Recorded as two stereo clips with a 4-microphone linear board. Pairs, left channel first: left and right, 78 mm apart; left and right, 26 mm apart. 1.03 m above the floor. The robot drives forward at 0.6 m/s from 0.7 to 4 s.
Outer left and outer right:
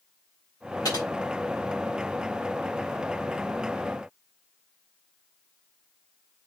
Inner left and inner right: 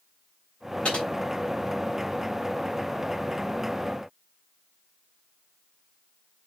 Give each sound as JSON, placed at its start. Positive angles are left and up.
{"t": 0.8, "sound": "typing on a keyboard", "side_deg": 60, "distance_m": 5.0}